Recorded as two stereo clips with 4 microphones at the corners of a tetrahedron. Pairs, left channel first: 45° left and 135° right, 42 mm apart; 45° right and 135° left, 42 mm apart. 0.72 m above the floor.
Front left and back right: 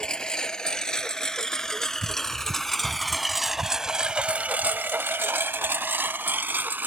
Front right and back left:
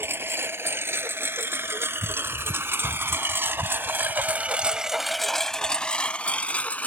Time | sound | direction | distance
0.0 | a lawn mower | 120° left | ?